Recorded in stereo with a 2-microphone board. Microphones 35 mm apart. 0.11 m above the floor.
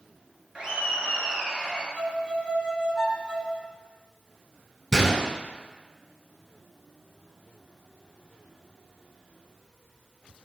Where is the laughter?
25° right (ahead or behind), 1.5 m; by 1.9 s 10° right (ahead or behind), 1.6 m.